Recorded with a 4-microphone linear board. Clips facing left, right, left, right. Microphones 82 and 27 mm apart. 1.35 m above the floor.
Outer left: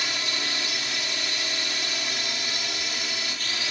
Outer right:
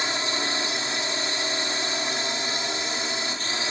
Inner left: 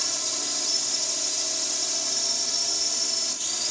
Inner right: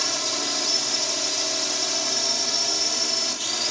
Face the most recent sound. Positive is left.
turn(degrees=-30)  # may be behind; listen again after turning